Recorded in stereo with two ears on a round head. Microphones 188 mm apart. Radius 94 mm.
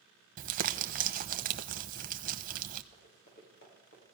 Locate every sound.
0.4 s crumpling: 45° right (ahead or behind), 0.9 m
2.9 s running footsteps: 50° left (ahead or behind), 6 m; by 4.0 s 60° left (ahead or behind), 6.5 m